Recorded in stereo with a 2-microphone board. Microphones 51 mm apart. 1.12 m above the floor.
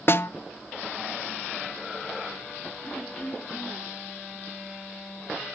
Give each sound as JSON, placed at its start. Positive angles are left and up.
{"t": 0.1, "sound": "a snare drum", "side_deg": 50, "distance_m": 0.5}
{"t": 2.8, "sound": "throat clearing", "side_deg": 30, "distance_m": 1.4}